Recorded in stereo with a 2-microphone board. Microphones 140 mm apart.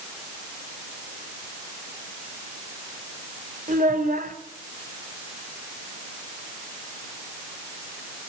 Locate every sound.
3.7 s a child speaking: 75° right (ahead or behind), 3 m